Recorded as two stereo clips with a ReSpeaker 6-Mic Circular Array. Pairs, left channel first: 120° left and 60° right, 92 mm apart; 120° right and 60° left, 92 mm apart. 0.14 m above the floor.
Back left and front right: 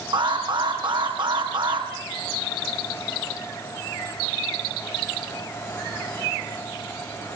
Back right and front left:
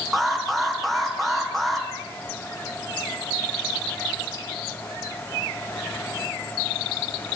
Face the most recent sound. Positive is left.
turn(degrees=-30)